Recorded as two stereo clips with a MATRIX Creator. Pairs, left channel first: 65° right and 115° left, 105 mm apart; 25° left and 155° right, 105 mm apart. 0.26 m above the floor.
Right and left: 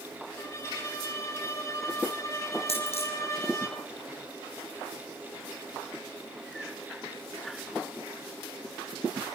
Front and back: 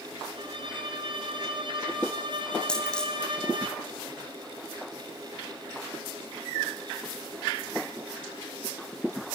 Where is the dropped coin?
60° right, 5.5 m.